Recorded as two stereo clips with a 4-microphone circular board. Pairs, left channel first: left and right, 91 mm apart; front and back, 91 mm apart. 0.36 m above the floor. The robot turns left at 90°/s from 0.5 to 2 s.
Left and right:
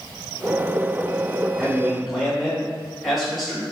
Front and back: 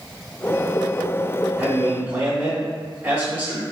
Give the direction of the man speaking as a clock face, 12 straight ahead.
5 o'clock.